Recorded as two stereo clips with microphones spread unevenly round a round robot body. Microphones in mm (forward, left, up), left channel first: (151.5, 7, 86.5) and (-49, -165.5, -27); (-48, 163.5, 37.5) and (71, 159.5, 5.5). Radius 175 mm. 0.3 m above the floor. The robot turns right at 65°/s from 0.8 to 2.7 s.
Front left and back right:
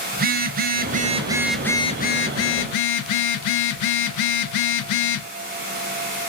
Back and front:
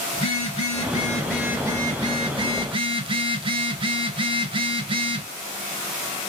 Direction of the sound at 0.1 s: 115° right.